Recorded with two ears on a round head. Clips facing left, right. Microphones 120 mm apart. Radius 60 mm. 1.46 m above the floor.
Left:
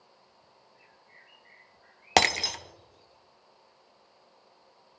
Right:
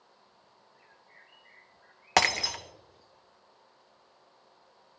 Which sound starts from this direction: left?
Breaking glass, at 2.2 s.